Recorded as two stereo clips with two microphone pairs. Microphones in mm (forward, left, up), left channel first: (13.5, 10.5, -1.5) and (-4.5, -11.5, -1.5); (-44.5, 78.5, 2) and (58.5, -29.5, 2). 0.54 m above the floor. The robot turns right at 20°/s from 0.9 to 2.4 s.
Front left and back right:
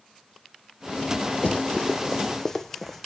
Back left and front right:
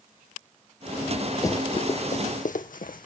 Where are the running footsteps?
70° left, 0.9 m; by 3.1 s 135° left, 1.3 m.